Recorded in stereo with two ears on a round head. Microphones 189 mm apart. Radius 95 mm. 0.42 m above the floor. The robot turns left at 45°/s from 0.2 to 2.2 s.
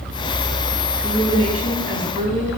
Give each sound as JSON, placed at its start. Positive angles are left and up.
{"t": 1.0, "sound": "a woman speaking", "azimuth_deg": -10, "distance_m": 4.0}